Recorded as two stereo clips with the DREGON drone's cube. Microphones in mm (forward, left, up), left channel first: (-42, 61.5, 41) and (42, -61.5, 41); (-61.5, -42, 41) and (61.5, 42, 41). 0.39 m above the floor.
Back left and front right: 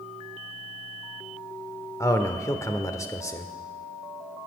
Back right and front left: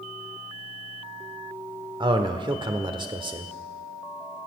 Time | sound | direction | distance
2.0 | a man speaking | 70° left | 1.1 m